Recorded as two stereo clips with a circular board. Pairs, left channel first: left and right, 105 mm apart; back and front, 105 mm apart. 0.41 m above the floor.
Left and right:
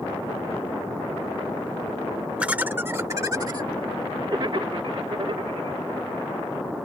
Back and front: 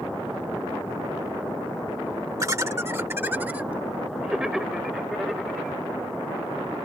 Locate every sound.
2.4 s laughter: 20° right; by 5.8 s 95° right